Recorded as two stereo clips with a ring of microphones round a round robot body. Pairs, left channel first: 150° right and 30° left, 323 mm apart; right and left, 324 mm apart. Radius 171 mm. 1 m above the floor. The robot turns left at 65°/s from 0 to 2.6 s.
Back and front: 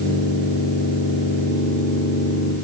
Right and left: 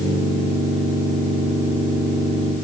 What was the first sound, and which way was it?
Only background noise.